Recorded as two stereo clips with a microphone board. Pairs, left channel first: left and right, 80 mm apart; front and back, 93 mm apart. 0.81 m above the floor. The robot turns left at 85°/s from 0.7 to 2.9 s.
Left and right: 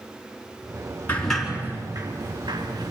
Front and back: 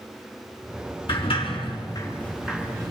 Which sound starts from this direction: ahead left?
A sliding door, at 1.1 s.